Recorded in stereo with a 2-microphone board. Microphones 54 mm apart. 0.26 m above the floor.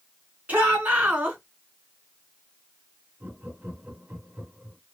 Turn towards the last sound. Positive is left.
turn(degrees=-30)  # may be behind; listen again after turning